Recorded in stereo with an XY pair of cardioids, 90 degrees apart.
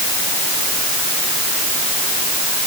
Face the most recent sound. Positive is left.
No sound to turn to.